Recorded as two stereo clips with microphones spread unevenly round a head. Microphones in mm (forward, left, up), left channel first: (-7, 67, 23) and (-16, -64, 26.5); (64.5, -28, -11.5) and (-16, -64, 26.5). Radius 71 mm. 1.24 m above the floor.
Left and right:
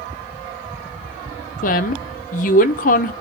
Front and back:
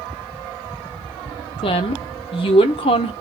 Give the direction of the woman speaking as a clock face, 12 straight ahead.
10 o'clock.